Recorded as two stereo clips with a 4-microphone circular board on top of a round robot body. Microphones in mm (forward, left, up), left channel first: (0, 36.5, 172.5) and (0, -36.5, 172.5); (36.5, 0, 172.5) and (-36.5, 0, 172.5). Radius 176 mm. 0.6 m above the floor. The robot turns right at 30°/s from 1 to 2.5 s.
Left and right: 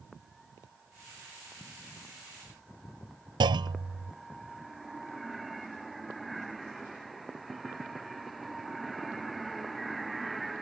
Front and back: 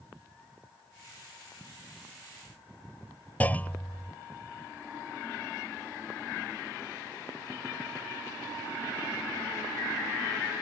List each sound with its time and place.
3.4 s a clunk: 70° right